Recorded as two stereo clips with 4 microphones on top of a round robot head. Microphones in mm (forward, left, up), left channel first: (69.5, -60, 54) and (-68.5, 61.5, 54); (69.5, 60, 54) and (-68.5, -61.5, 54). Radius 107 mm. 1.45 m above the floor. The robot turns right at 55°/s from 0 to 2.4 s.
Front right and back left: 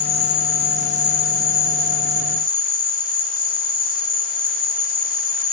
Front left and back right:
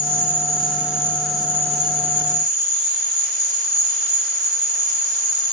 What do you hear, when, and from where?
0.0 s an insect: 60° left, 1.7 m; by 5.5 s 170° right, 1.7 m